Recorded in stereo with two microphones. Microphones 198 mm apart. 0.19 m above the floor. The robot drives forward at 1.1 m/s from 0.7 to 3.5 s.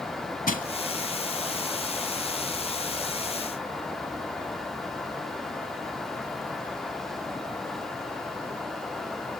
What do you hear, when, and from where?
0.5 s crushing: 45° left (ahead or behind), 0.8 m